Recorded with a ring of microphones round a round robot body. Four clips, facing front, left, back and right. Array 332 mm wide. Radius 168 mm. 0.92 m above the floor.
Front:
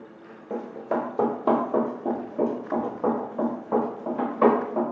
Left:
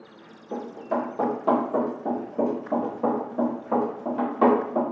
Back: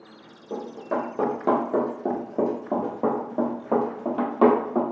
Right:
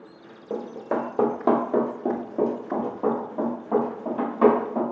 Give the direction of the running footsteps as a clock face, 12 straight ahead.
2 o'clock.